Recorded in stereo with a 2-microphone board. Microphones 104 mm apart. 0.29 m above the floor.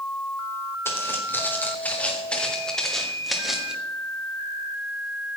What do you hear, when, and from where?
0.8 s footsteps: 25° left (ahead or behind), 4 m; by 3.8 s 5° right (ahead or behind), 3.5 m